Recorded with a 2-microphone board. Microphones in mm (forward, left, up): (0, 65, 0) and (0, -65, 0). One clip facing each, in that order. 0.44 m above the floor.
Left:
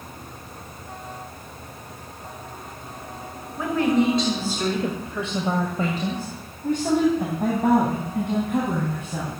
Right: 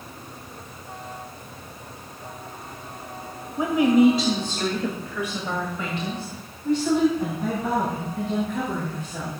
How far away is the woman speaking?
About 1.6 m.